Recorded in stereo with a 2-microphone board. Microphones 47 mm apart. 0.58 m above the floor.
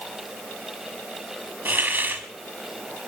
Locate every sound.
1.6 s a hiss: 45° right (ahead or behind), 1.6 m